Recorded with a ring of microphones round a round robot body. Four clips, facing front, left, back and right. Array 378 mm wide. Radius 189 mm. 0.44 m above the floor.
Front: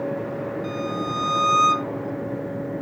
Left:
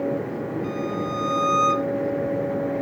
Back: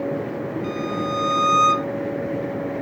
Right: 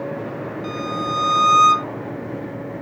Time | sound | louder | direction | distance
0.6 | a violin | right 2 dB, back 2 dB | 90° right | ?